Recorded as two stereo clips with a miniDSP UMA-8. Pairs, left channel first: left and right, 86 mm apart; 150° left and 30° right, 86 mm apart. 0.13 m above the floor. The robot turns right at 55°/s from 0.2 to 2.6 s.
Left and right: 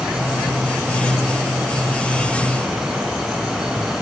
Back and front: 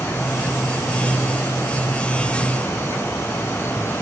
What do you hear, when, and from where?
Only background noise.